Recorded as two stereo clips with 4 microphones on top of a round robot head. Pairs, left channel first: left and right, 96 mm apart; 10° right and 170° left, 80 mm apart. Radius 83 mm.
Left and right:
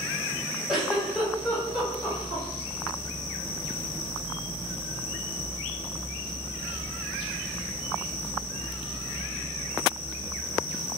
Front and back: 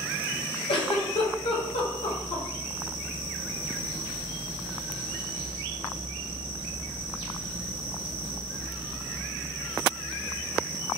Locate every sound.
0.7 s a giggle: 5° right, 1.0 m